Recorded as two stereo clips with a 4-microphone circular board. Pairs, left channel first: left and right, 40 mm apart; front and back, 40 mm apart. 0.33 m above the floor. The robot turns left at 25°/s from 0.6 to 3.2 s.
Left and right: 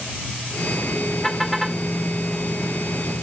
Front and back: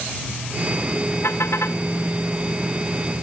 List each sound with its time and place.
1.2 s a car horn: 10° left; by 1.8 s 5° right